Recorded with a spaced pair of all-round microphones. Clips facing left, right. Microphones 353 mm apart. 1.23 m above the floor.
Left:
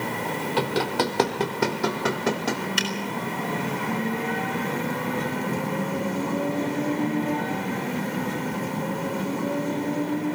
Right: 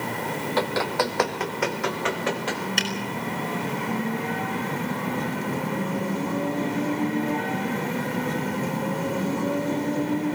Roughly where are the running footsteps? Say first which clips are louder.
Left 1 dB; left.